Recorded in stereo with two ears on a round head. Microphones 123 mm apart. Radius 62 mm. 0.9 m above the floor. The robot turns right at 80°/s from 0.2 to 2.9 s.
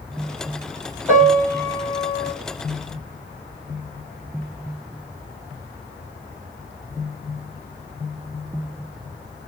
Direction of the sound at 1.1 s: 10° right.